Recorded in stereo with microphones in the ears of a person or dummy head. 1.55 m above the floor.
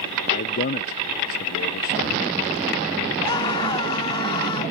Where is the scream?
30° left (ahead or behind).